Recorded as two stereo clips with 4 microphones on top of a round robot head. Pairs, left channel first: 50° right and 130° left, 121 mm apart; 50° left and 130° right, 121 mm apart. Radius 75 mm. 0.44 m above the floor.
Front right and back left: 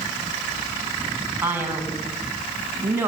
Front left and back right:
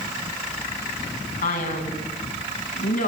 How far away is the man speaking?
About 5.5 m.